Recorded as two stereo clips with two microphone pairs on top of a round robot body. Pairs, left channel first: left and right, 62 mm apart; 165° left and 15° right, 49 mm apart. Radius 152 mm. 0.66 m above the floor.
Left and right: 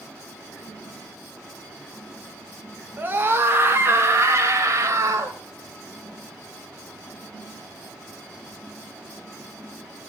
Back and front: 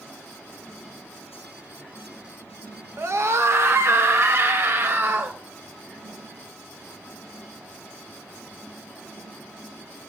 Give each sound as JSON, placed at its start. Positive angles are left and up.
{"t": 3.0, "sound": "a scream", "azimuth_deg": -30, "distance_m": 2.5}